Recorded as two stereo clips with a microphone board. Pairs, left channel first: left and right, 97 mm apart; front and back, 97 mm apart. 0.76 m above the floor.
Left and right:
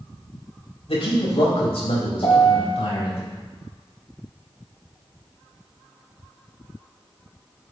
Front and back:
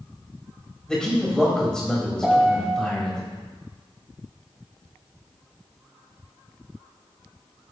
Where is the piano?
95° left, 1.7 m.